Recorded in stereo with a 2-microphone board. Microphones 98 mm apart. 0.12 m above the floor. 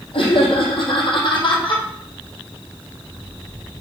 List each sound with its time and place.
0.1 s laughter: 65° left (ahead or behind), 3 m; by 1.8 s 55° left (ahead or behind), 3.5 m